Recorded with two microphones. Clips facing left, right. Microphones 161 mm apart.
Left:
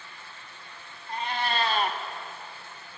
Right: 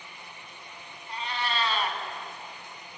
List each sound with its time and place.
1.1 s a cat meowing: 50° left (ahead or behind), 1.0 m